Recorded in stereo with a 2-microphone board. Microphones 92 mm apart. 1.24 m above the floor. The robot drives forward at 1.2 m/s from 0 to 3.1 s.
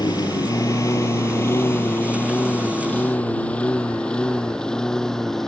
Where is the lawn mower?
45° left (ahead or behind); by 5.5 s 5° left (ahead or behind).